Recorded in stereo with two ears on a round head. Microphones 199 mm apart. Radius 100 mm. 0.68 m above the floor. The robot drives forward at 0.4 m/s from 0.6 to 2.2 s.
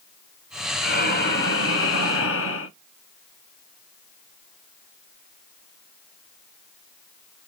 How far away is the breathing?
About 0.8 m.